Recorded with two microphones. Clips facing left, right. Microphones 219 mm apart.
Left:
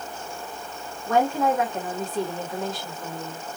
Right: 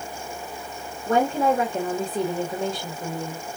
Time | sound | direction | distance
1.1 | a woman speaking | 40° right (ahead or behind) | 1.5 m